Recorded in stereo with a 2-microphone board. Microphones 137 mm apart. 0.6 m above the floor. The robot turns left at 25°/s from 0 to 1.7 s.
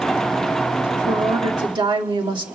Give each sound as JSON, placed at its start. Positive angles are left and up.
{"t": 0.9, "sound": "a woman speaking", "side_deg": -25, "distance_m": 1.4}